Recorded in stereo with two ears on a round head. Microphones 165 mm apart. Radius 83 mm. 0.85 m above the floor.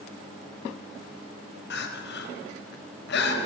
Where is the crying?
65° left (ahead or behind), 4 m.